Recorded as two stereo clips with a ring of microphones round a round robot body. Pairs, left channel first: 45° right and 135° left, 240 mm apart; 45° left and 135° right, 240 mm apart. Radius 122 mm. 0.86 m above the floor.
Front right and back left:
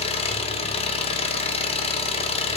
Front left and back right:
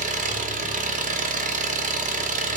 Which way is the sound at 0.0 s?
95° right.